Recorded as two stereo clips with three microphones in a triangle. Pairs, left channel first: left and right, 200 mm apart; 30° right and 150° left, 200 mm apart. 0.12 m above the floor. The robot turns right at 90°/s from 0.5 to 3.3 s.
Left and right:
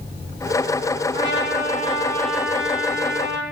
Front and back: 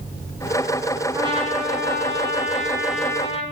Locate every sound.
1.1 s a trumpet: 75° left, 3 m; by 3.4 s 90° right, 3 m